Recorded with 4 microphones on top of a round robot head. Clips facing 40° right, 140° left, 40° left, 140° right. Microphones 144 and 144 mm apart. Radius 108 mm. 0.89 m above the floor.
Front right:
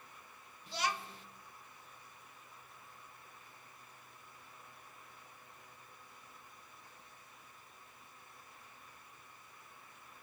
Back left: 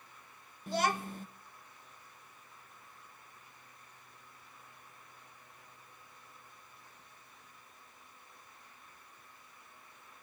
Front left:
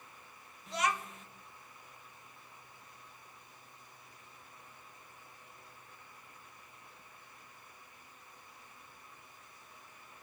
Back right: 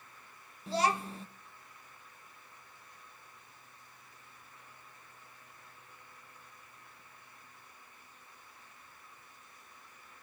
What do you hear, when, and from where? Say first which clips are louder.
0.7 s a child speaking: back left 6 dB, back right 4 dB; 170° left, 0.6 m